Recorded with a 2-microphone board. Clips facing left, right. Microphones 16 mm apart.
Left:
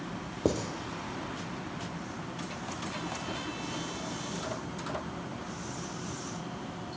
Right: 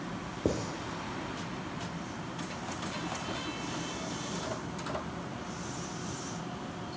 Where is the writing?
45° left (ahead or behind), 0.7 m.